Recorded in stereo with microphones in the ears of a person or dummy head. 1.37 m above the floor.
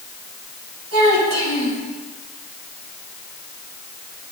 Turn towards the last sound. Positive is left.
turn(degrees=-80)